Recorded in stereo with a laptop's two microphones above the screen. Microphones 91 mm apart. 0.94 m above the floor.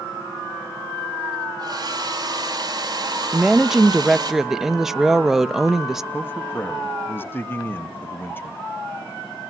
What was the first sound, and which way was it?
A hair dryer, 45° right (ahead or behind).